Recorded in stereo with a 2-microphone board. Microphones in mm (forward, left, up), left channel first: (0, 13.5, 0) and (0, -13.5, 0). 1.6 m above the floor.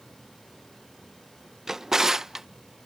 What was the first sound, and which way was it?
A drawer, 15° right (ahead or behind).